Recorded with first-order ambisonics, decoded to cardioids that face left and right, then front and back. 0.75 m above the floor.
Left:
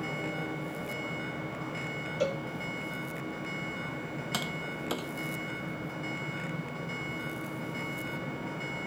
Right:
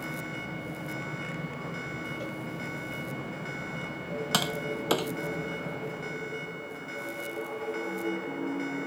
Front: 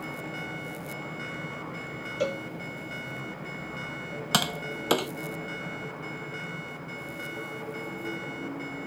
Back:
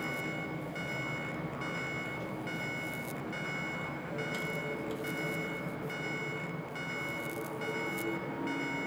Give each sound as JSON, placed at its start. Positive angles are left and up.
{"t": 2.2, "sound": "a cowbell", "azimuth_deg": 35}
{"t": 4.3, "sound": "tapping", "azimuth_deg": -25}